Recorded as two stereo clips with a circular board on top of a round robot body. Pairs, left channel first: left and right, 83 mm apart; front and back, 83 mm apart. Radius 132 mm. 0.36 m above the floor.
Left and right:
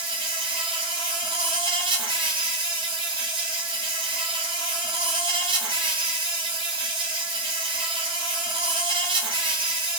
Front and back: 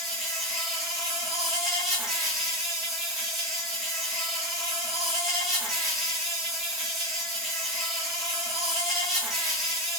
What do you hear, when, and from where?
0.0 s an insect: 95° right, 0.8 m